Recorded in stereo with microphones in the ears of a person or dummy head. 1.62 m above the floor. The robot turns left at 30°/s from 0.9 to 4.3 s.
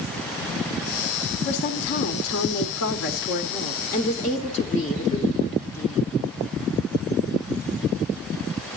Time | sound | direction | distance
1.4 | a woman speaking | 125° left | 1.3 m